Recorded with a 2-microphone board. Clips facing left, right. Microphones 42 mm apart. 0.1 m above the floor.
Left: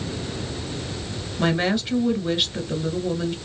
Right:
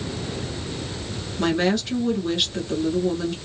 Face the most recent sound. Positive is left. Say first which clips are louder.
# right 1 dB
turn(degrees=15)  # may be behind; listen again after turning